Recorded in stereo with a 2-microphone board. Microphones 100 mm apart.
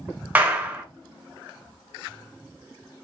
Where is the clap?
15° right (ahead or behind), 1.2 m.